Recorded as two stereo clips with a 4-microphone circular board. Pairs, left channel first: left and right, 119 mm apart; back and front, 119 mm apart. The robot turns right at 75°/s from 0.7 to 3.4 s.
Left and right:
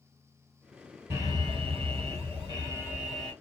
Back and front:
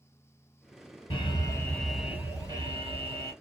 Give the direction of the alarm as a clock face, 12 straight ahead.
5 o'clock.